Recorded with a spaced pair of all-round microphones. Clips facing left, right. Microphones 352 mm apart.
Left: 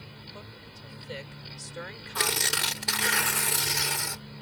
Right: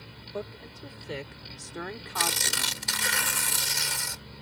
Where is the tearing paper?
65° left (ahead or behind).